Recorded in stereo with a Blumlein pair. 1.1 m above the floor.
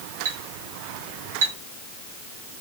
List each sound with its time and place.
0.2 s a clink: 60° right, 1.0 m